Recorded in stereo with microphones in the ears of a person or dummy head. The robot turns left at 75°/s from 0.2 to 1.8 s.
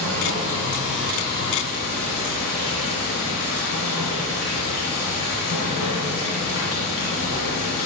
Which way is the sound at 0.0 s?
115° right.